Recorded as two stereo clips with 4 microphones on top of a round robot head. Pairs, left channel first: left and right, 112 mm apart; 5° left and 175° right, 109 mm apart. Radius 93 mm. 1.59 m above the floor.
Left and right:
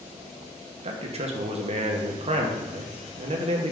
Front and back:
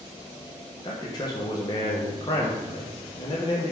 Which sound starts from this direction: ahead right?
A man speaking, at 0.8 s.